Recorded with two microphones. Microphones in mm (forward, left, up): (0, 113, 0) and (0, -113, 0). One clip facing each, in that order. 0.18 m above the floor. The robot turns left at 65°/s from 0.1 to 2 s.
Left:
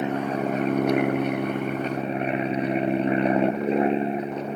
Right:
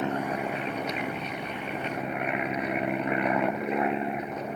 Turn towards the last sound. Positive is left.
turn(degrees=35)